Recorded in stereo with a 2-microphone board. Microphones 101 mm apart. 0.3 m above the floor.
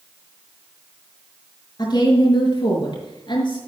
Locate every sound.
1.8 s a woman speaking: 45° left (ahead or behind), 5.5 m; by 3.6 s 55° left (ahead or behind), 5 m